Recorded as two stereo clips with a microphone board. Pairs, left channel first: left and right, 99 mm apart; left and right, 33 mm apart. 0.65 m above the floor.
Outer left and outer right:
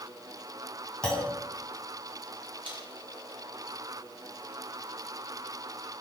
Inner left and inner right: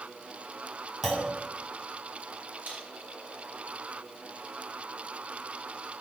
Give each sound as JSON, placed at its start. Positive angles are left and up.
{"t": 1.0, "sound": "a clunk", "side_deg": 10, "distance_m": 3.0}
{"t": 2.6, "sound": "a man speaking", "side_deg": -60, "distance_m": 5.0}